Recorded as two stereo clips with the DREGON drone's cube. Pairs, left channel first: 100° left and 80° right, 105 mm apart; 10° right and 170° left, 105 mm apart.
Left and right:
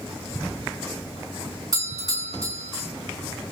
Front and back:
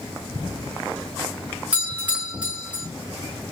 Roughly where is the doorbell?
Behind right.